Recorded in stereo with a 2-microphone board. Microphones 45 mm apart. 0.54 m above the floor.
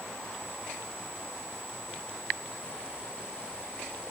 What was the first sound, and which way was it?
Only background noise.